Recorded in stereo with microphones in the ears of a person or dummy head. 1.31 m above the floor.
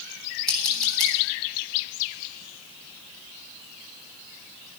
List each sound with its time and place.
0.5 s scissors: 5° left (ahead or behind), 9 m